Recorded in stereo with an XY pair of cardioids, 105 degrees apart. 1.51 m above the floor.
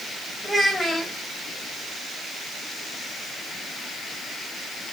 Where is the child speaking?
15° left, 1.3 m.